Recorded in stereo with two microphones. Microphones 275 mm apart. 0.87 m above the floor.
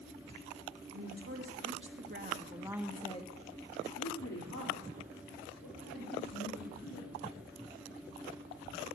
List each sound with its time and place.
0.9 s a woman speaking: 65° right (ahead or behind), 2.5 m; by 7.2 s 85° left, 4.5 m